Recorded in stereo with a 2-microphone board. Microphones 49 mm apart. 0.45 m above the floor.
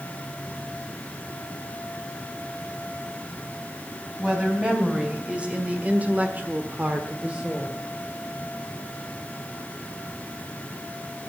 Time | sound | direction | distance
4.2 | a woman speaking | 15° right (ahead or behind) | 3.5 m